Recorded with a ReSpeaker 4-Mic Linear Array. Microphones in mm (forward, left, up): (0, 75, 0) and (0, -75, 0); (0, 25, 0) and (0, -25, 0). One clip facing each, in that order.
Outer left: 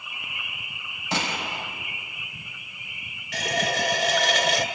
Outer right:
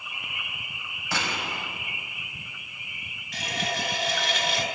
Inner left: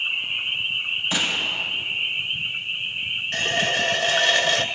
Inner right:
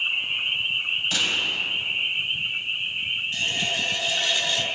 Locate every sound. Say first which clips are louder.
1.1 s a gunshot: outer left 2 dB, inner left 2 dB; 20° left (ahead or behind), 4.5 m
3.3 s a running tap: outer left 5 dB, inner left 7 dB; 75° left (ahead or behind), 1.6 m